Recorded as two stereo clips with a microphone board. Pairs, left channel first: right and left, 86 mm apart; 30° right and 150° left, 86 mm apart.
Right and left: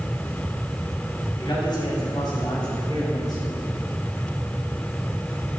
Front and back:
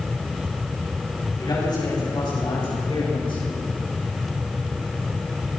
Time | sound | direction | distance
1.4 | a man speaking | 65° right | 7.5 m